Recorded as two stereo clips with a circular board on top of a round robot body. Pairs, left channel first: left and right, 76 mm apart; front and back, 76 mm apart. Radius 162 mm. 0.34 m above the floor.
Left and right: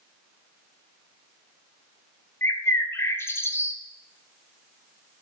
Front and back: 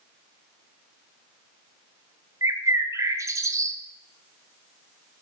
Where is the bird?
140° left, 1.3 m.